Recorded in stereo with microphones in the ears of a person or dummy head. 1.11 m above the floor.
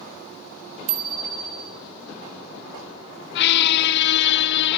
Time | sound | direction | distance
0.9 | a bicycle bell | 40° right (ahead or behind) | 3 m
3.4 | a squeak | 65° left (ahead or behind) | 0.6 m